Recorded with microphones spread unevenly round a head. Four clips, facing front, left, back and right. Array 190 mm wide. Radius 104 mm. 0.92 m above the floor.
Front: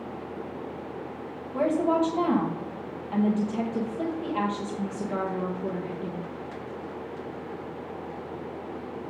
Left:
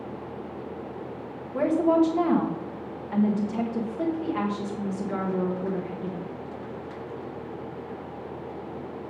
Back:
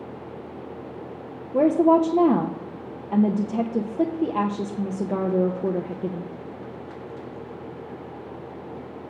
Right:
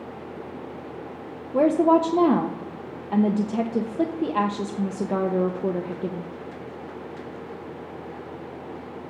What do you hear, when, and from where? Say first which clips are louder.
1.5 s a woman speaking: right 3 dB, back 7 dB; 135° right, 1.0 m